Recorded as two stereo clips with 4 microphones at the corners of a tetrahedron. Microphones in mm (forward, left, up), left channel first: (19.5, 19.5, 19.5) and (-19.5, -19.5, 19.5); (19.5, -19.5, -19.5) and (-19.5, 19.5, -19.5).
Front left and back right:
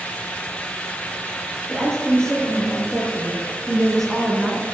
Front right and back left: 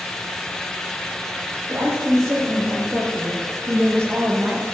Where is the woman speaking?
120° left, 4 m; by 4.6 s 135° left, 2.0 m.